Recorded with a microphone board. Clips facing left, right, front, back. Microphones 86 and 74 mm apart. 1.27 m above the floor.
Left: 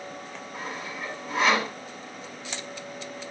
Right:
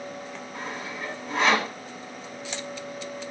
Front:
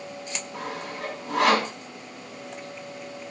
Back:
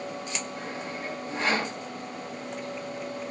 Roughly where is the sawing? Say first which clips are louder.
Even, front 1 dB; ahead.